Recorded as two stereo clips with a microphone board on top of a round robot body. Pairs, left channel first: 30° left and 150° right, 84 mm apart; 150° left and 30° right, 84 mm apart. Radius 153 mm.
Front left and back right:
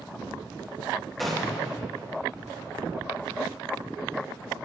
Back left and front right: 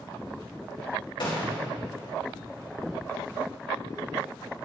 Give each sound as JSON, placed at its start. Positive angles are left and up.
{"t": 1.2, "sound": "a gunshot", "azimuth_deg": 120, "distance_m": 4.0}